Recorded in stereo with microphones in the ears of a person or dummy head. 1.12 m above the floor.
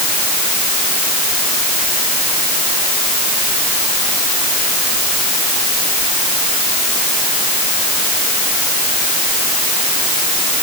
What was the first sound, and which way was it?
Only background noise.